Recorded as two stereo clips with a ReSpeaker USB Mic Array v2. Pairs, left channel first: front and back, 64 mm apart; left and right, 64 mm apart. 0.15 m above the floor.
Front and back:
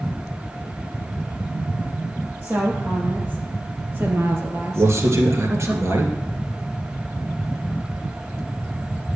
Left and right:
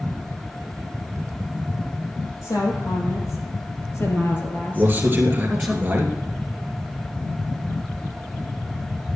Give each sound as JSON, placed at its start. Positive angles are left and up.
{"t": 2.4, "sound": "a woman speaking", "azimuth_deg": 115, "distance_m": 4.5}
{"t": 4.8, "sound": "a man speaking", "azimuth_deg": -145, "distance_m": 2.5}